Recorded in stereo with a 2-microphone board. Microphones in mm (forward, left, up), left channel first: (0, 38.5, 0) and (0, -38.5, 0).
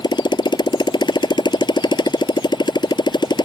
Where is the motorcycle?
75° left (ahead or behind).